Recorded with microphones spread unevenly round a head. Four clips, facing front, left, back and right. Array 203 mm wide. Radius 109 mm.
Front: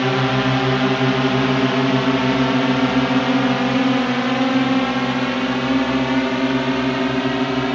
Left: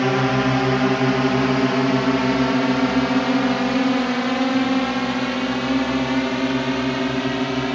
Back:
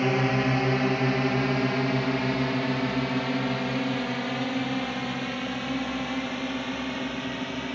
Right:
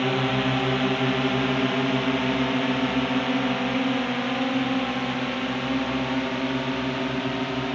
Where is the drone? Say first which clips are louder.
Left 5 dB, front 6 dB; 55° left; by 7.8 s 20° left.